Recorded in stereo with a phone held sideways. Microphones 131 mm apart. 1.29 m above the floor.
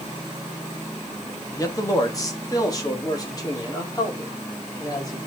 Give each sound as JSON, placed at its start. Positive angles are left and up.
{"t": 1.6, "sound": "a man speaking", "side_deg": 25, "distance_m": 1.9}